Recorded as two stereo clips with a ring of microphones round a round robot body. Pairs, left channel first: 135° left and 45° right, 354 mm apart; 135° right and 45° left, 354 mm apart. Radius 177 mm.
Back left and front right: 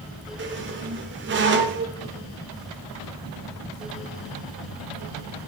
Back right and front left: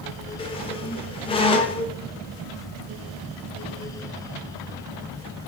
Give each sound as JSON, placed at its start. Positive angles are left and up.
{"t": 0.4, "sound": "a squeak", "azimuth_deg": -70, "distance_m": 0.8}